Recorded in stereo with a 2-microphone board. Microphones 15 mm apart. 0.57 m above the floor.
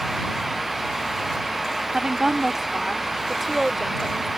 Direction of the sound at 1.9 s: 40° right (ahead or behind).